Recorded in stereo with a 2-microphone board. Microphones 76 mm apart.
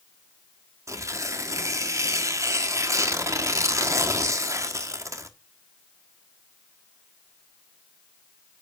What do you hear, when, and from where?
0.9 s tearing paper: 45° right (ahead or behind), 1.3 m